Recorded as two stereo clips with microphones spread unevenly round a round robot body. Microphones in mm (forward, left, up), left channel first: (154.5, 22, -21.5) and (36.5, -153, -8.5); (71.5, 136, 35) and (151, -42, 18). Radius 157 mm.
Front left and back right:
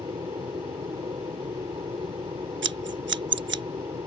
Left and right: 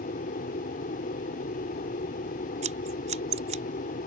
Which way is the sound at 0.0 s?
160° left.